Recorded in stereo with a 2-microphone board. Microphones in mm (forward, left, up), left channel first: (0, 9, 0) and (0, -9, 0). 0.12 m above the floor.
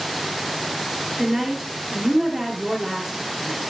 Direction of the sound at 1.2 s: 10° right (ahead or behind).